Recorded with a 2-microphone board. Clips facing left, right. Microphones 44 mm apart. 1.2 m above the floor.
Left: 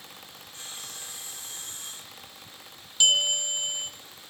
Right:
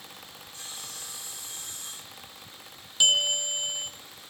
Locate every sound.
0.5 s sawing: 40° left (ahead or behind), 6 m
3.0 s a bell: 10° right (ahead or behind), 1.4 m